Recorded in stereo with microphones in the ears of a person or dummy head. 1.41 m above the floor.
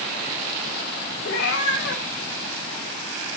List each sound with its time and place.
1.2 s a cat meowing: 70° left (ahead or behind), 3.5 m; by 3.3 s 60° left (ahead or behind), 5 m